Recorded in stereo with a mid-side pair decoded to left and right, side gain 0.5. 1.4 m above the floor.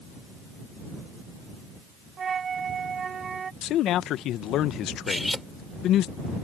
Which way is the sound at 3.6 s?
70° left.